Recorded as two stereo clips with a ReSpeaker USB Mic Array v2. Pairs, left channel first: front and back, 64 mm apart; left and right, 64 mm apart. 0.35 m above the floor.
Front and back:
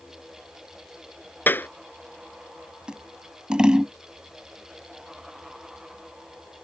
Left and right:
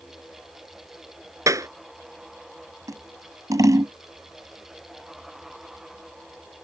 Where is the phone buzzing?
No phone buzzing in this recording.